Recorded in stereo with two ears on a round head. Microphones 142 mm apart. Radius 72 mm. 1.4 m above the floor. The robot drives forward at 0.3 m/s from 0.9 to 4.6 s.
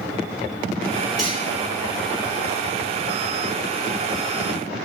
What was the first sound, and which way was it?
Cutlery clinking, centre (ahead or behind).